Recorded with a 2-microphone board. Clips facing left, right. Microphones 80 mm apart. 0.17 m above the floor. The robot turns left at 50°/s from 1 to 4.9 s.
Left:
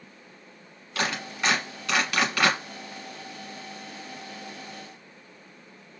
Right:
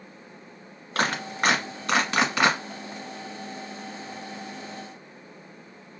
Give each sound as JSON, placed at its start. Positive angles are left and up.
{"t": 0.9, "sound": "a clap", "side_deg": -40, "distance_m": 1.4}